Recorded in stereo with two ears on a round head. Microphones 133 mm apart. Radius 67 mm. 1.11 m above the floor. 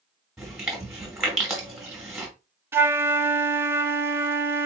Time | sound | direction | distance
0.4 | chewing | 5° right (ahead or behind) | 2.0 m
2.7 | a flute | 15° right (ahead or behind) | 0.5 m